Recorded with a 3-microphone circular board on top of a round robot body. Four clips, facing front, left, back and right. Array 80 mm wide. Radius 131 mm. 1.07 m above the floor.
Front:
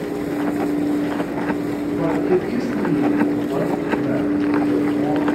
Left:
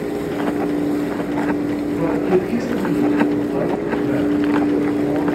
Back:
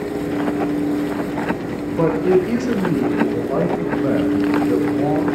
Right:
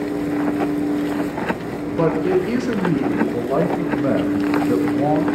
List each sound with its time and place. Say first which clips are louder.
2.0 s a man speaking: right 1 dB, back 4 dB; 140° right, 4 m; by 5.3 s 115° right, 6 m